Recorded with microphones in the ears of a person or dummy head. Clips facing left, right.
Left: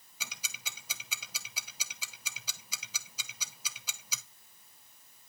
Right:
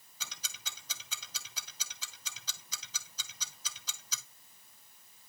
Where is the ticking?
10° left (ahead or behind), 0.6 m.